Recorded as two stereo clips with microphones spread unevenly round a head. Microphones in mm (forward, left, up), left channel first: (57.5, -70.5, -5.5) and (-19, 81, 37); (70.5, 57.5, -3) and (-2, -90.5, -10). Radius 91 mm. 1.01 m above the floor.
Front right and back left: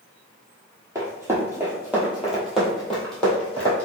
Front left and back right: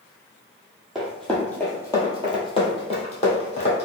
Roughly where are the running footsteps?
Behind left.